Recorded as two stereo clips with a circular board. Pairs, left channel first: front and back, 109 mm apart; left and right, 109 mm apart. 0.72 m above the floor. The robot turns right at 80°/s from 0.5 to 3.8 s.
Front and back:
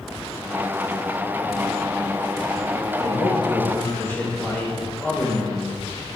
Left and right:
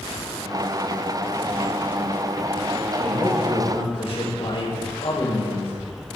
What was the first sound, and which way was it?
A man speaking, 5° left.